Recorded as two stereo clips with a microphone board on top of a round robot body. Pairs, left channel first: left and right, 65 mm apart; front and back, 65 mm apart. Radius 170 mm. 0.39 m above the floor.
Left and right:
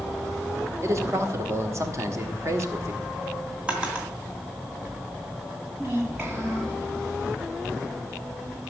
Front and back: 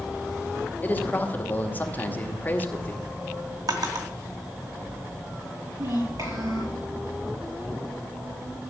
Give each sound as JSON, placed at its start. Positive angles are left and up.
{"t": 0.8, "sound": "a man speaking", "azimuth_deg": -60, "distance_m": 2.5}
{"t": 3.7, "sound": "a drawer", "azimuth_deg": -165, "distance_m": 2.5}
{"t": 5.8, "sound": "a child speaking", "azimuth_deg": -155, "distance_m": 6.5}